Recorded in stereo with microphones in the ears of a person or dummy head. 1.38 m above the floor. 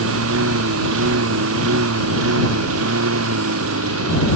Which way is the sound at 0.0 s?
75° right (ahead or behind).